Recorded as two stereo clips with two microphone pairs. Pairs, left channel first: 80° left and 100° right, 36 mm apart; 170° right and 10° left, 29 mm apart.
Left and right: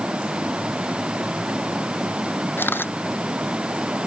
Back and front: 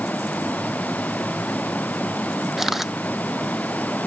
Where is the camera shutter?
85° left.